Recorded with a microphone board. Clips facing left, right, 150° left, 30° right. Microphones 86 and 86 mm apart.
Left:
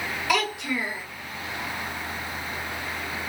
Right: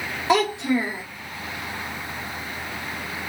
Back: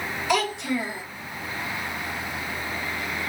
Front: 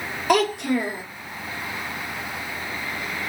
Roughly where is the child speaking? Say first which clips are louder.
Right 7 dB, front 5 dB; ahead right.